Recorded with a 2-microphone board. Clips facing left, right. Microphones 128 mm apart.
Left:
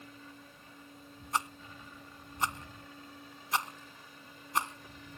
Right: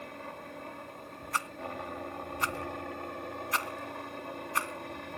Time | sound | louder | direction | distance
0.0 | a helicopter | right 9 dB | 65° right (ahead or behind) | ?
1.3 | a rattle | even | 20° left (ahead or behind) | ?